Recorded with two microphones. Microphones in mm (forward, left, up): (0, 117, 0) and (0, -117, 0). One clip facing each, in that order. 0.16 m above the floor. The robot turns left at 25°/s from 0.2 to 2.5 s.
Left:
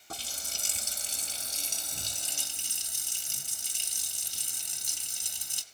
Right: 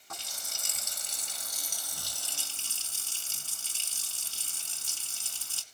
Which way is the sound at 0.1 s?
85° left.